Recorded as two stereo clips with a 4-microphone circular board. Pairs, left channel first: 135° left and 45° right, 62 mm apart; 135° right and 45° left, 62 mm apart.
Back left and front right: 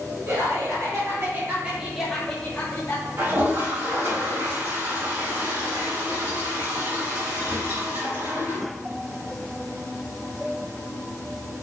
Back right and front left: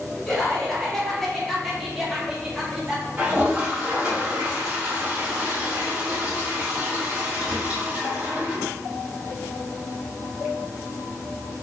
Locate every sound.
0.3 s laughter: 55° right, 1.2 m; by 3.1 s 120° left, 0.8 m
3.2 s a toilet flushing: 20° right, 1.2 m